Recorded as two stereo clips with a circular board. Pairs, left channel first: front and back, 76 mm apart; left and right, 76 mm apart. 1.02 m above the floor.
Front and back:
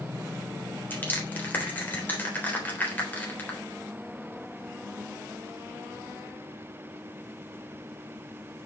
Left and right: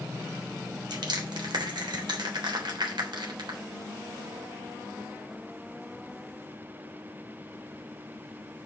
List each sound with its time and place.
0.9 s crushing: 65° right, 3.5 m